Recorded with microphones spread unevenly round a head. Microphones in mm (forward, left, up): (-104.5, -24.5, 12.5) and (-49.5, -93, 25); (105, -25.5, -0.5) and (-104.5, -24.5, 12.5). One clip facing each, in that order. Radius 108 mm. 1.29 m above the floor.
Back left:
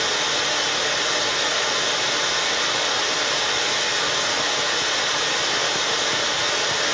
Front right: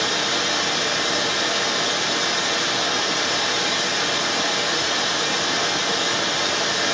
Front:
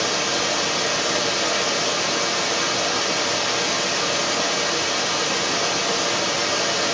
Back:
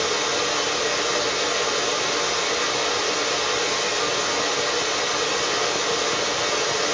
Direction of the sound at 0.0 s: 35° right.